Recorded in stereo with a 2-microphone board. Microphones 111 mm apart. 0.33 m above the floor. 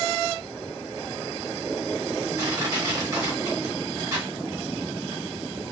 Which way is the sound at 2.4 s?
30° right (ahead or behind).